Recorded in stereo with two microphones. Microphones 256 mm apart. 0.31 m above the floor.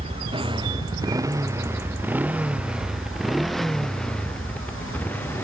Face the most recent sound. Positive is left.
turn(degrees=10)  # may be behind; listen again after turning